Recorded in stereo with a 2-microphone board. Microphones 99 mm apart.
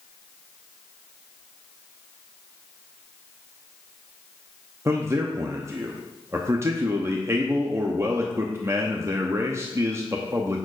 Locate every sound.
4.8 s a man speaking: 30° right (ahead or behind), 0.6 m